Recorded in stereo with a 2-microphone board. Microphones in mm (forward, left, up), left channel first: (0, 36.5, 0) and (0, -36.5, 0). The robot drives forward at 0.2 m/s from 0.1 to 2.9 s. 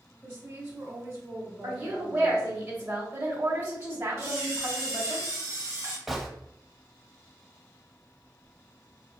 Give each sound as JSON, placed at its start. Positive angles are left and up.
{"t": 0.2, "sound": "a woman speaking", "side_deg": -25, "distance_m": 1.8}
{"t": 1.6, "sound": "a woman speaking", "side_deg": -30, "distance_m": 1.4}
{"t": 4.2, "sound": "a camera shutter", "side_deg": -40, "distance_m": 1.7}
{"t": 6.1, "sound": "a gunshot", "side_deg": -5, "distance_m": 0.7}